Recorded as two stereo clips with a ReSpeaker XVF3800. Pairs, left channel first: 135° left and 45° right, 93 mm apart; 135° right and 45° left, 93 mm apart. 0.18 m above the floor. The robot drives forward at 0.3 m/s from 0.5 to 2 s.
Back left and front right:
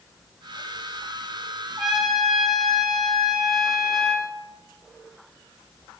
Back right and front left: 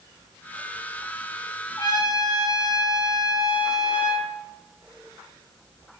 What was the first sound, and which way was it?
A trumpet, 130° right.